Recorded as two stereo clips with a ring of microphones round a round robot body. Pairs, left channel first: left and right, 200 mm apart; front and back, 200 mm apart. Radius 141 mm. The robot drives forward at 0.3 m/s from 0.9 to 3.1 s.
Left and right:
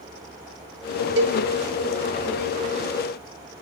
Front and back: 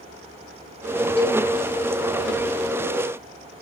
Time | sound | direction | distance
1.2 | a cowbell | 100° right | 1.2 m